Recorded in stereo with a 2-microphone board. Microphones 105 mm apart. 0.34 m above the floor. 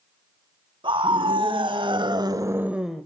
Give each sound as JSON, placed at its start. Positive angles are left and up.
{"t": 0.8, "sound": "a scream", "side_deg": -55, "distance_m": 2.5}